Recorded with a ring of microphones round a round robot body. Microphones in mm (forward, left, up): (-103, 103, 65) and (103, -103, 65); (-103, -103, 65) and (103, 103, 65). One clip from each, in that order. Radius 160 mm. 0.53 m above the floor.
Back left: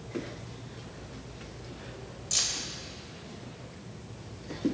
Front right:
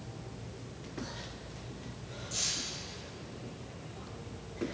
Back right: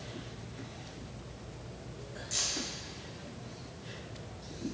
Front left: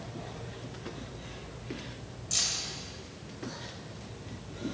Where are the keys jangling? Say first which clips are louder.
Back left 5 dB, front left 3 dB; 120° left, 2.5 m.